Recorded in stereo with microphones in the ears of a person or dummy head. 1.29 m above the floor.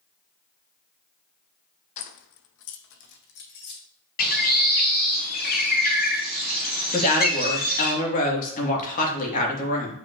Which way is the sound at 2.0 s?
40° left (ahead or behind).